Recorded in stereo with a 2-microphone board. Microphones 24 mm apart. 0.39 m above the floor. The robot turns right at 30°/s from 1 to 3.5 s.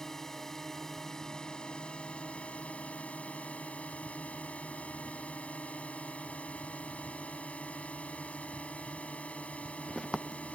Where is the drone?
20° left; by 10.6 s 95° left.